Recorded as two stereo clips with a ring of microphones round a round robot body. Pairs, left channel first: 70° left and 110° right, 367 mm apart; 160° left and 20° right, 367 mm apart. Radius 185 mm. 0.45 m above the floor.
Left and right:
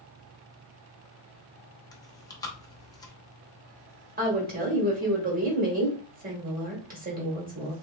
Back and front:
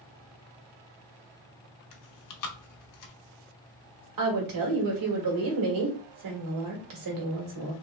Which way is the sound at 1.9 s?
145° left.